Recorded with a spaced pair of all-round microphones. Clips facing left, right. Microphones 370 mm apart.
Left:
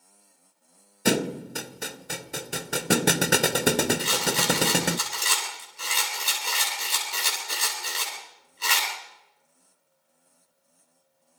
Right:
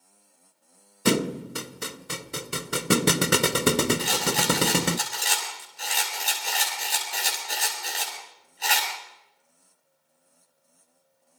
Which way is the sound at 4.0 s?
10° left (ahead or behind).